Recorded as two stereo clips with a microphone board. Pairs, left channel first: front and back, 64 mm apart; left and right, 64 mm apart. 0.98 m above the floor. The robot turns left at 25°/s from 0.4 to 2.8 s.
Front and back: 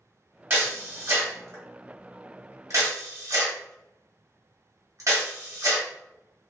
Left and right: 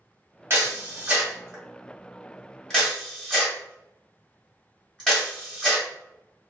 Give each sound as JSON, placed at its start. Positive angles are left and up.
{"t": 0.5, "sound": "a camera shutter", "azimuth_deg": -135, "distance_m": 1.2}